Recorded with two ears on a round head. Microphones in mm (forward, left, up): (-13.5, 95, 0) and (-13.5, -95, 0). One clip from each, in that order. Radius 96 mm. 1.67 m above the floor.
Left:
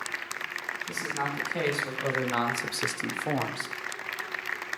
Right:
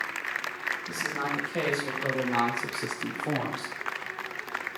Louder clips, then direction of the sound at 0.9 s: Right 1 dB; 10° left (ahead or behind).